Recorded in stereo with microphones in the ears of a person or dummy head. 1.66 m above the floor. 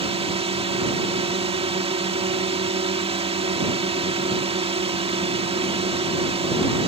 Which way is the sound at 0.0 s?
30° right (ahead or behind).